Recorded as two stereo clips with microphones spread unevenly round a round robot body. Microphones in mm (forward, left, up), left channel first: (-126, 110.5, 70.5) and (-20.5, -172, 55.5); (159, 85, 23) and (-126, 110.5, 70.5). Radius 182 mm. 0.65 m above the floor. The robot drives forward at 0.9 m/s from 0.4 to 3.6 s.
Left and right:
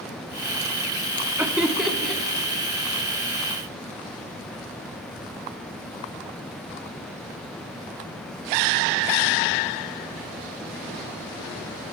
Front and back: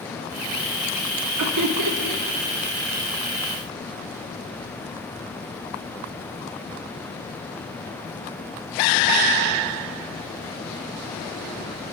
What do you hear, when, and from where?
1.4 s laughter: 150° right, 1.2 m; by 2.2 s 160° right, 1.8 m